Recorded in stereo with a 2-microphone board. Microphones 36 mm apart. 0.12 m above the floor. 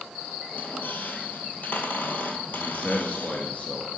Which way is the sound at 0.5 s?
65° left (ahead or behind).